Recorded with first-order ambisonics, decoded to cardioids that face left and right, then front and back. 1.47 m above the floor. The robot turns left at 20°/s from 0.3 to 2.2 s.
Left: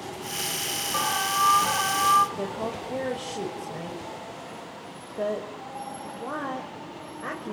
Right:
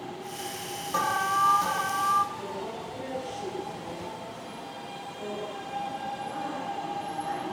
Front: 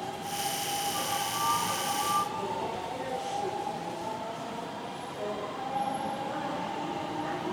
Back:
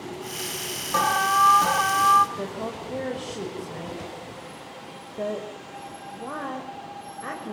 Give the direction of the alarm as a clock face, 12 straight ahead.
6 o'clock.